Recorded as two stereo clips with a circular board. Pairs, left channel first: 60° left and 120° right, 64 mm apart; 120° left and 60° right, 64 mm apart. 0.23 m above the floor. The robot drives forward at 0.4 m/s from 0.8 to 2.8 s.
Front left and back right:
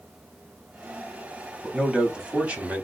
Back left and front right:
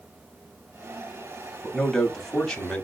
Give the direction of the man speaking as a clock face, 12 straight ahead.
5 o'clock.